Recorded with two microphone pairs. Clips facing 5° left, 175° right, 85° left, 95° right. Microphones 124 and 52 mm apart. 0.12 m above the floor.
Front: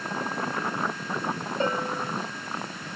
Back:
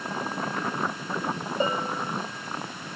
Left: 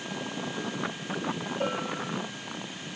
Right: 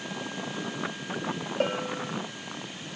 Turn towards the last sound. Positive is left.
turn(degrees=-100)